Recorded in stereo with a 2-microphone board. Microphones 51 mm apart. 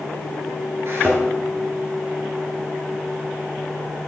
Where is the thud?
50° right (ahead or behind), 3 m.